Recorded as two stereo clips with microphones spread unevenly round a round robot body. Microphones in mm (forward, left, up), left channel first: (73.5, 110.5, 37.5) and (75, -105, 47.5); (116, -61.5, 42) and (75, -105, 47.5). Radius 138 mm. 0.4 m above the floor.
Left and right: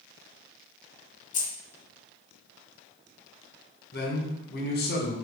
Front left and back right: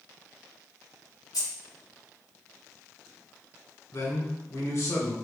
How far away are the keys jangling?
About 1.3 m.